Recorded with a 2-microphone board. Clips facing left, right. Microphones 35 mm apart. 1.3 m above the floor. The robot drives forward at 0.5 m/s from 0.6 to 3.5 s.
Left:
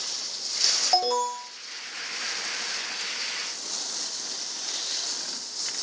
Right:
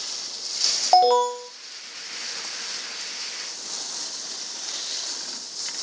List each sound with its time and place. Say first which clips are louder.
0.9 s an alarm: right 10 dB; 30° right (ahead or behind), 0.9 m; by 1.5 s 45° right (ahead or behind), 0.7 m